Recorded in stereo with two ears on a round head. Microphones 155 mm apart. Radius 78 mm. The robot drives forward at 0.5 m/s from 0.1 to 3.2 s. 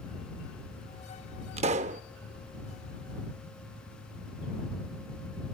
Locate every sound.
1.6 s a pop: 35° right (ahead or behind), 0.7 m; by 2.0 s 45° right (ahead or behind), 0.6 m